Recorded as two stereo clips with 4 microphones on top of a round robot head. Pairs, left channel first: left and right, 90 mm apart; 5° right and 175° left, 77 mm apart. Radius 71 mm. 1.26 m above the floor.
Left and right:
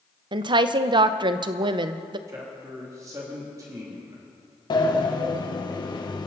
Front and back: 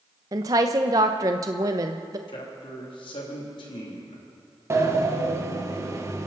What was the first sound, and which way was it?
A woman speaking, 125° right.